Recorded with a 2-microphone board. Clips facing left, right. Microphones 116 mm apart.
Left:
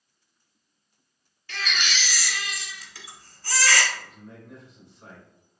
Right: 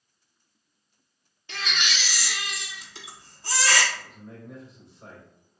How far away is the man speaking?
About 1.6 m.